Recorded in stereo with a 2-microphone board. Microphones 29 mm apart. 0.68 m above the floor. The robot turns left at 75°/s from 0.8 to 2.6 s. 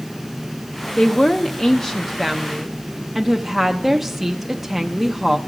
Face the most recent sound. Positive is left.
turn(degrees=-5)  # may be behind; listen again after turning